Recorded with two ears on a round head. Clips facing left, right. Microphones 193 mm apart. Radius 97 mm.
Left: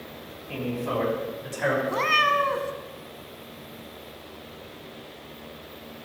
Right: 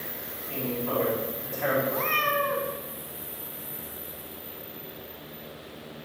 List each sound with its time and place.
0.5 s a man speaking: 60° left (ahead or behind), 4.5 m; by 1.8 s 50° left (ahead or behind), 5 m
1.9 s a cat meowing: 70° left (ahead or behind), 1.0 m